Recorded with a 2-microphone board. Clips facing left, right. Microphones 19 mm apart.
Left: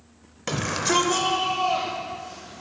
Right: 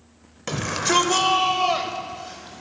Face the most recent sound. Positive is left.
turn(degrees=-45)  # may be behind; listen again after turning